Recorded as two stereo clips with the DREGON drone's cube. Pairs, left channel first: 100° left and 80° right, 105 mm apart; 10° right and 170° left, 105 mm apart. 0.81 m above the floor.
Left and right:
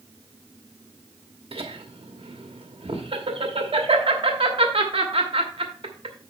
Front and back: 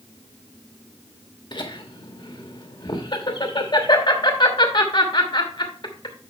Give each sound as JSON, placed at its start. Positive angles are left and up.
{"t": 1.5, "sound": "laughter", "azimuth_deg": -55, "distance_m": 1.1}